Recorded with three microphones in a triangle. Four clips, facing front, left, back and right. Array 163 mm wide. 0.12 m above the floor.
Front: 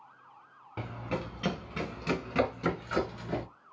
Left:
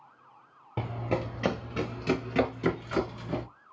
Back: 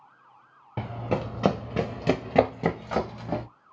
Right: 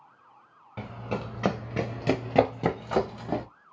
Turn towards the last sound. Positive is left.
turn(degrees=-120)